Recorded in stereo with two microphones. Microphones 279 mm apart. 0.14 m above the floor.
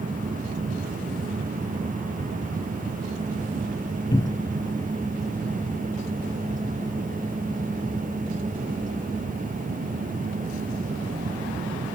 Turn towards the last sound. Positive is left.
turn(degrees=10)  # may be behind; listen again after turning